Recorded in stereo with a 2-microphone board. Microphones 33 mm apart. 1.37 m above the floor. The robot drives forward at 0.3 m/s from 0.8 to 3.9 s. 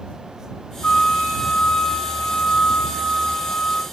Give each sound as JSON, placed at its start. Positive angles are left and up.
{"t": 0.8, "sound": "a flute", "side_deg": 40, "distance_m": 0.7}